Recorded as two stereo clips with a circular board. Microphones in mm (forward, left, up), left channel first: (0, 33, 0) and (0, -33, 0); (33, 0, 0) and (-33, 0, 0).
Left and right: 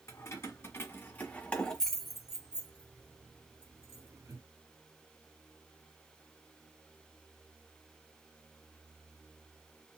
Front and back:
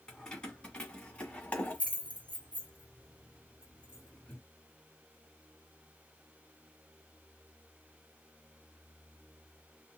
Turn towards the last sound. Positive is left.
turn(degrees=-70)